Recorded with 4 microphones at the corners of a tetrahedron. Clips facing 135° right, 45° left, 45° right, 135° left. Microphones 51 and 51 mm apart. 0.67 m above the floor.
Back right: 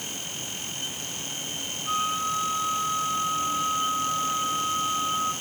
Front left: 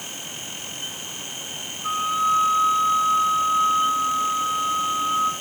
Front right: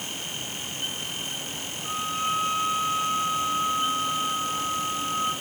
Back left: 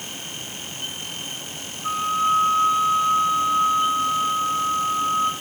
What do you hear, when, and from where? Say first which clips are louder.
1.8 s a flute: front left 6 dB, back left 7 dB; 70° left, 9.5 m